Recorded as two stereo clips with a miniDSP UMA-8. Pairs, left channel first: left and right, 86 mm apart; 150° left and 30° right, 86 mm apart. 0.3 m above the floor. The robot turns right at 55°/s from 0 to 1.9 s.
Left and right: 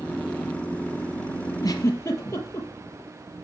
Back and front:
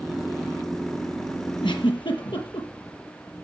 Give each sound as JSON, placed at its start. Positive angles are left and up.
{"t": 1.6, "sound": "a giggle", "azimuth_deg": 130, "distance_m": 4.5}